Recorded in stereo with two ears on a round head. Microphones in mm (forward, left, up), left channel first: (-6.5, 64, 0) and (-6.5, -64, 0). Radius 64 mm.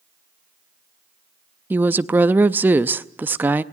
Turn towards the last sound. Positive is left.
turn(degrees=-15)  # may be behind; listen again after turning